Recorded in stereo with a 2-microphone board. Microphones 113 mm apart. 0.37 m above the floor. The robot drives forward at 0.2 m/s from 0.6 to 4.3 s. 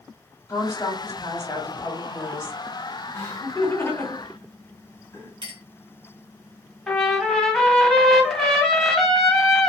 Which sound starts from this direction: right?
A clink, at 5.4 s.